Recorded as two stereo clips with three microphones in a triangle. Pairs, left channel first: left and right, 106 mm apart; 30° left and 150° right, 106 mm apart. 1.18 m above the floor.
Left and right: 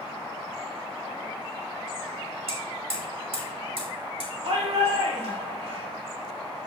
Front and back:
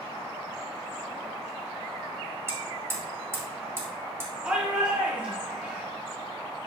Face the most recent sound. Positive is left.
turn(degrees=-75)